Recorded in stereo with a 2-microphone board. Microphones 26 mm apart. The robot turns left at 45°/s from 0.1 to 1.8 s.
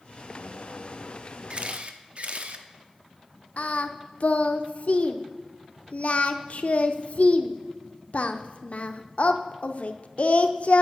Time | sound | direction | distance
1.5 | a camera shutter | 40° right (ahead or behind) | 0.9 m
3.6 | singing | 60° left (ahead or behind) | 0.7 m